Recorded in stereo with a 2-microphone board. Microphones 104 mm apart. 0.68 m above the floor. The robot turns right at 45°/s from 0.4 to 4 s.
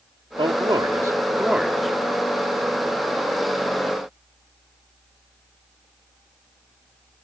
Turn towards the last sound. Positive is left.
turn(degrees=95)